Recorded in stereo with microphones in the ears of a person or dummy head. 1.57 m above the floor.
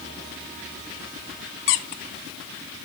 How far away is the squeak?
About 1.6 m.